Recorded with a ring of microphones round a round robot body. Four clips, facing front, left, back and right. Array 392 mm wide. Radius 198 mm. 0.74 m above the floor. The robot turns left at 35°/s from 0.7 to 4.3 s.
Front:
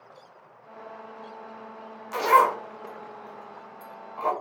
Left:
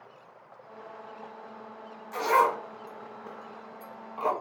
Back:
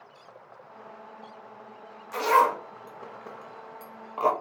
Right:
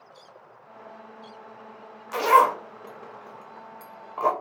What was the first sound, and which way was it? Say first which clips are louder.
A zipper: right 5 dB, front 2 dB; 65° right.